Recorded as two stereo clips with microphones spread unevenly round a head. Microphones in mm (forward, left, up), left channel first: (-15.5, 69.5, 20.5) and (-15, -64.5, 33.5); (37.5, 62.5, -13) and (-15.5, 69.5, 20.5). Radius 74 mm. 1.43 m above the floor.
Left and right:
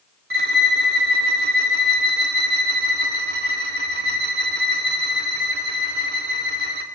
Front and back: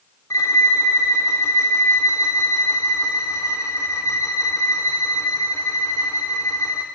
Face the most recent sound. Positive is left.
turn(degrees=-85)